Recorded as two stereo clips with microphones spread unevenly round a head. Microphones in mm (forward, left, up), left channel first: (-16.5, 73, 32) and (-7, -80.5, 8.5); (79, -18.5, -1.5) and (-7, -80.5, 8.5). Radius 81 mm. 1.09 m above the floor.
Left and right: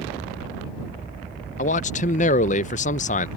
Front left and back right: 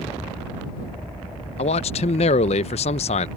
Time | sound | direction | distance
1.6 | a man speaking | 50° left | ?